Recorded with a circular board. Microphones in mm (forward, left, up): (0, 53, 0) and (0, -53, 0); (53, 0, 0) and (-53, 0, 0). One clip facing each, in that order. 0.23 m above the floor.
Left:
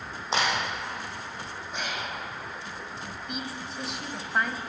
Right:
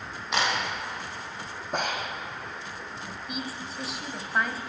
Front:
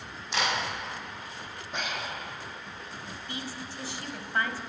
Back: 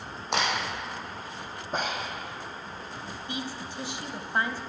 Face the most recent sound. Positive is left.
turn(degrees=-175)